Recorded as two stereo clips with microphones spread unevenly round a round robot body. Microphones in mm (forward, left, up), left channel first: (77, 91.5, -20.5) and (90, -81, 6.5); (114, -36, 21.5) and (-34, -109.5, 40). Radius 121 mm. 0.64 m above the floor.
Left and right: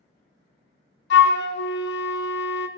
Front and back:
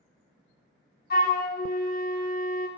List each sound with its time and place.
1.1 s a flute: 85° left, 0.6 m